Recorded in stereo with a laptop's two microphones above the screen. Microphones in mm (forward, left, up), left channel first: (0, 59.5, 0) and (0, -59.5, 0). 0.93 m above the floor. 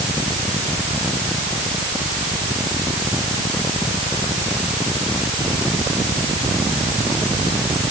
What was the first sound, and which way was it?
Only background noise.